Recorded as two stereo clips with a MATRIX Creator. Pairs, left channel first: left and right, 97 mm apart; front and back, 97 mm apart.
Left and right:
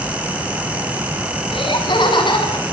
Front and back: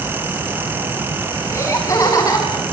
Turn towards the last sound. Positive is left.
turn(degrees=55)